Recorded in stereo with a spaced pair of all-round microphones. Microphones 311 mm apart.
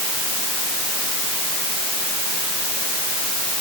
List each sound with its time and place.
Only background noise.